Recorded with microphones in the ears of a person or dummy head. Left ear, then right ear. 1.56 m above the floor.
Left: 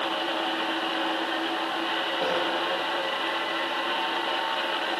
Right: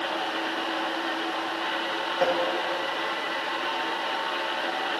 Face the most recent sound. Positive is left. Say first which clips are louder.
# right 5 dB
turn(degrees=-45)  # may be behind; listen again after turning